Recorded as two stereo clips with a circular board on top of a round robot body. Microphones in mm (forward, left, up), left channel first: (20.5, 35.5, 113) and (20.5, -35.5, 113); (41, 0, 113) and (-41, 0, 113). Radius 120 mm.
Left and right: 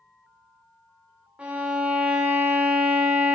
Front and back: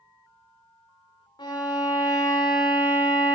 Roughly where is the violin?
Ahead.